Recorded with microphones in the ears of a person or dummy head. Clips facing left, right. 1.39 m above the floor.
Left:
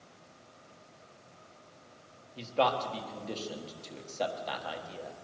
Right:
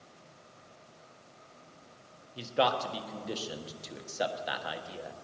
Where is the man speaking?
15° right (ahead or behind), 1.4 m.